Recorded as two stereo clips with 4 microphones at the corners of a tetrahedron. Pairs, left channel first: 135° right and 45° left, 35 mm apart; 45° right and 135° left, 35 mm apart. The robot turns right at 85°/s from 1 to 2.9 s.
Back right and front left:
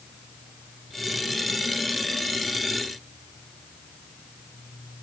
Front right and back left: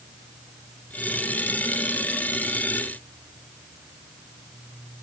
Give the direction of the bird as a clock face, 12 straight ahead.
I don't hear a bird.